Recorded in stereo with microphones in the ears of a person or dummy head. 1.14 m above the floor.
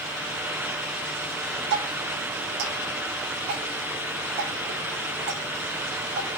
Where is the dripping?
60° right (ahead or behind), 5.5 m.